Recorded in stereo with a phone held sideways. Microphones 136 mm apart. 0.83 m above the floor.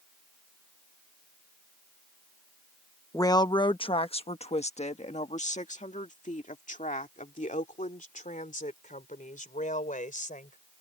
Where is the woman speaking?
25° left (ahead or behind); by 10.6 s 75° left (ahead or behind).